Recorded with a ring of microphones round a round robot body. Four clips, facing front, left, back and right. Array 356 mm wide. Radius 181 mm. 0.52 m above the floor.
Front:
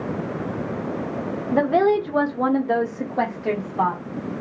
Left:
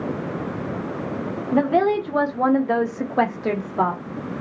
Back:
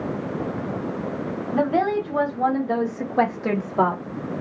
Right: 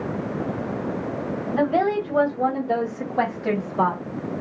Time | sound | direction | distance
1.5 | a woman speaking | 35° left | 1.4 m